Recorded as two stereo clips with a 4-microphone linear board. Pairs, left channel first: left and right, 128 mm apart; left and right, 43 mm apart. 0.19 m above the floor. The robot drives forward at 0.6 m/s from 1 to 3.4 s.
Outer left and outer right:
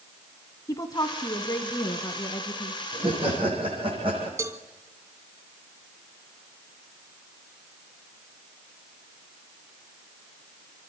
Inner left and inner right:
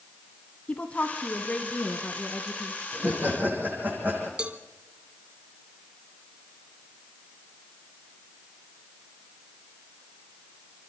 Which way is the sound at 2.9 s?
45° right (ahead or behind).